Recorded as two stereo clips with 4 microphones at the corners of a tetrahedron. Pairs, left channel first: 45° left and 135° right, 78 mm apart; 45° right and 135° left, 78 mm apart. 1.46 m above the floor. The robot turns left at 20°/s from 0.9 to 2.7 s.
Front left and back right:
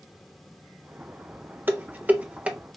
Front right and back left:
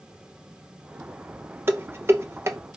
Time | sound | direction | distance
1.7 | dishes clattering | 175° left | 0.7 m